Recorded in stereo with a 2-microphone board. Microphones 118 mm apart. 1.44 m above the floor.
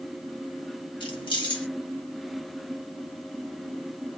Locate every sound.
1.0 s keys jangling: 45° left (ahead or behind), 1.4 m